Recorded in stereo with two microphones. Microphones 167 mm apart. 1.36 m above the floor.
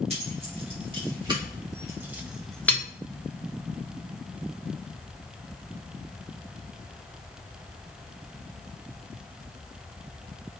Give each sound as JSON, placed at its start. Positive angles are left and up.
{"t": 0.1, "sound": "keys jangling", "side_deg": -35, "distance_m": 2.0}